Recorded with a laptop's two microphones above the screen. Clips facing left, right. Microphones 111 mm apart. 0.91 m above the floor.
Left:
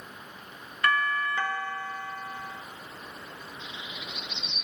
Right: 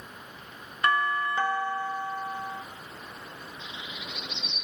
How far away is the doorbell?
About 0.7 m.